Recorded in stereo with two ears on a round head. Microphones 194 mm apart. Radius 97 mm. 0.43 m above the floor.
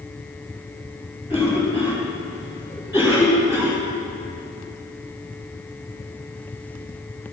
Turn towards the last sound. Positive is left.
turn(degrees=-15)  # may be behind; listen again after turning